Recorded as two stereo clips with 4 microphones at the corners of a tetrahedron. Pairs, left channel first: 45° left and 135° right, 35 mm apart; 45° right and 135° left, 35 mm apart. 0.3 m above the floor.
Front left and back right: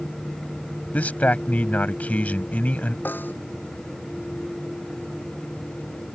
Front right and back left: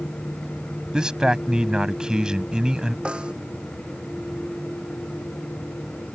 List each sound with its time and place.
0.9 s a man speaking: 75° left
3.0 s a snare drum: 75° left